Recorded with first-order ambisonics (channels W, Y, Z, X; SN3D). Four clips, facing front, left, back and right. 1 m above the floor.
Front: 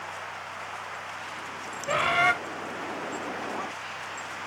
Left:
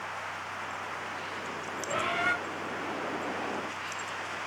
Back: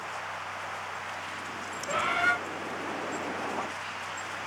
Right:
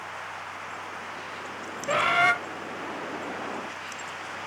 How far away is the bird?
About 0.7 m.